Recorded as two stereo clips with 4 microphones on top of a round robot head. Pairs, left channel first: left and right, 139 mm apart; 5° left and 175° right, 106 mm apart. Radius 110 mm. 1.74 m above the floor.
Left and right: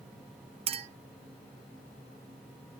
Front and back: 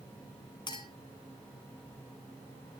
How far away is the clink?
About 0.8 m.